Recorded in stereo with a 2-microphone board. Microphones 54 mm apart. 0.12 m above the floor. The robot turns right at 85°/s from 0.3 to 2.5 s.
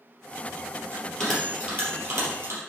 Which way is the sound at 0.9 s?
25° left (ahead or behind).